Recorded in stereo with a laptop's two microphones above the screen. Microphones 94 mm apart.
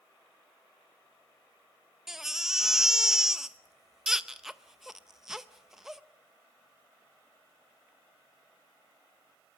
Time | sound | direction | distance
2.1 | a baby crying | 5° right (ahead or behind) | 0.6 m